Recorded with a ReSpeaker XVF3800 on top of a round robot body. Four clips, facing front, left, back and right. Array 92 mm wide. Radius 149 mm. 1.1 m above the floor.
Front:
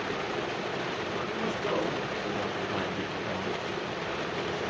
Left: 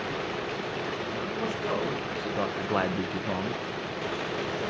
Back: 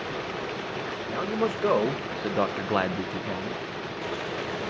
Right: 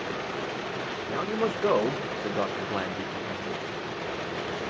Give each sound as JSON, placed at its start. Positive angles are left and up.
{"t": 1.1, "sound": "a man speaking", "azimuth_deg": -130, "distance_m": 2.0}